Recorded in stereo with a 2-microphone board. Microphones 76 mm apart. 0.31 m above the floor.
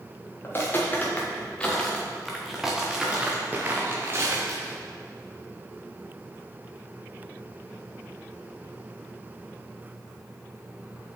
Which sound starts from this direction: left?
Footsteps, at 0.4 s.